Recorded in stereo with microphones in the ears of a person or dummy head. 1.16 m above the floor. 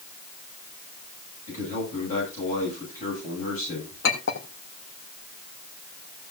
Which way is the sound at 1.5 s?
45° left (ahead or behind).